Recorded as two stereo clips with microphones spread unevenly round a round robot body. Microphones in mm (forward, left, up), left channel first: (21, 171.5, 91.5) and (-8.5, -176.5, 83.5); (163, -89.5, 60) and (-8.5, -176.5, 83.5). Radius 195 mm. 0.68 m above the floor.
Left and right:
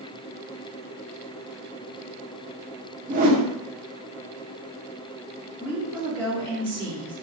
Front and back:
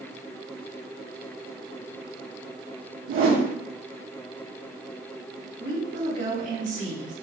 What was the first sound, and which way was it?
A whoosh, 165° right.